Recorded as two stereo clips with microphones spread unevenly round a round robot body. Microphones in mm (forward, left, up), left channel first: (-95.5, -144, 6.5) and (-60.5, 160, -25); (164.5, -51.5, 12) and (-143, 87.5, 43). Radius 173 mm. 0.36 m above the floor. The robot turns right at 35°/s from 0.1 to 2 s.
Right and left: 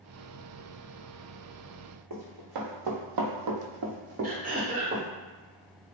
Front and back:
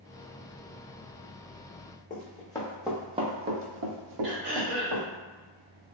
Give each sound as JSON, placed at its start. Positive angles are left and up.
{"t": 2.1, "sound": "running footsteps", "azimuth_deg": 45, "distance_m": 1.2}
{"t": 4.2, "sound": "throat clearing", "azimuth_deg": 125, "distance_m": 1.5}